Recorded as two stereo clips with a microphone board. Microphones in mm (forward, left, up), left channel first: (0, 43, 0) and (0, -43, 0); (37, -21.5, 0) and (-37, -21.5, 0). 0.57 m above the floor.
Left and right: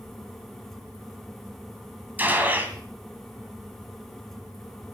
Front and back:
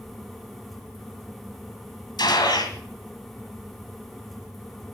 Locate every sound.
2.2 s a gunshot: 20° right, 2 m